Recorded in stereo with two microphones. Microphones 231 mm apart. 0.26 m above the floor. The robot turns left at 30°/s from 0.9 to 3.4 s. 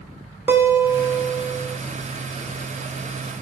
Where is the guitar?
10° right (ahead or behind), 0.7 m; by 1.8 s 20° right (ahead or behind), 0.7 m.